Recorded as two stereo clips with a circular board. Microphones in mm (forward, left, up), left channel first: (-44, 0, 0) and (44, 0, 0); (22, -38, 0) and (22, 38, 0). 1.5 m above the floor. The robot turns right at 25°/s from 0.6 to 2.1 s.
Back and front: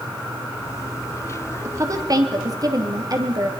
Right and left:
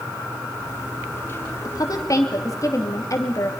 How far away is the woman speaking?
About 3 m.